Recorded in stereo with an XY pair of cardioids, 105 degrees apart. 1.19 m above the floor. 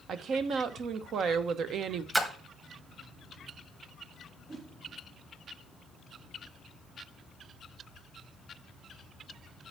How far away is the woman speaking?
About 0.9 m.